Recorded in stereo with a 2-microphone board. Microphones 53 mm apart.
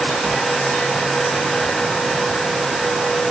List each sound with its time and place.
Only background noise.